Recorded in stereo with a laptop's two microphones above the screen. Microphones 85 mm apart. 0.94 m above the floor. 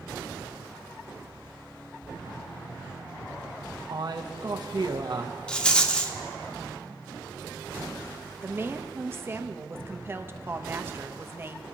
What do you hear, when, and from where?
3.9 s a man speaking: 55° right (ahead or behind), 0.9 m
5.5 s a rattle: 10° left (ahead or behind), 0.7 m
8.4 s a woman speaking: 25° right (ahead or behind), 0.9 m